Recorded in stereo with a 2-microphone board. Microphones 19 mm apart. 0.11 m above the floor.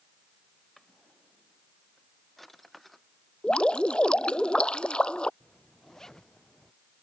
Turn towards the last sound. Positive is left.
turn(degrees=35)  # may be behind; listen again after turning